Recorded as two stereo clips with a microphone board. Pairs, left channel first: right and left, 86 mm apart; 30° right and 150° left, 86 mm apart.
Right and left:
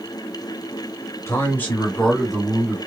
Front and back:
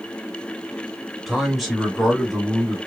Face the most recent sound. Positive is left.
turn(degrees=45)